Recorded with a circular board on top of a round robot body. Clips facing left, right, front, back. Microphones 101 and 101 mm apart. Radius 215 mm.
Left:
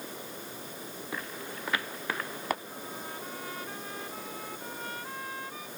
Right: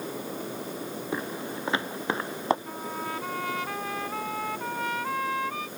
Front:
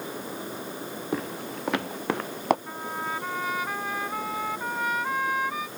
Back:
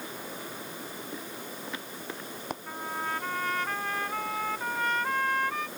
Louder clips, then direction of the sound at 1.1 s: Right 6 dB, front 8 dB; 25° right.